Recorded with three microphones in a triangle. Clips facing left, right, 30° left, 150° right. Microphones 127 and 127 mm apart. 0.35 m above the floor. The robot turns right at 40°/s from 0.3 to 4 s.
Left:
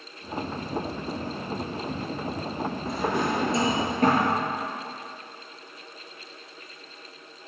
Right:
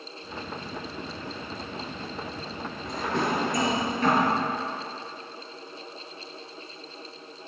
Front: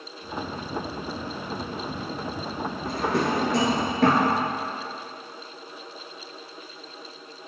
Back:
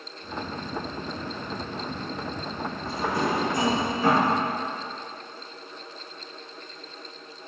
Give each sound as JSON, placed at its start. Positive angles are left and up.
{"t": 2.9, "sound": "a drawer", "azimuth_deg": 0, "distance_m": 2.0}